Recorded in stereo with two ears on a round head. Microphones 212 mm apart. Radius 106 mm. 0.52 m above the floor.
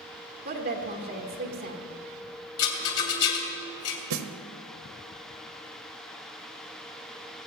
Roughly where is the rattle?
Left.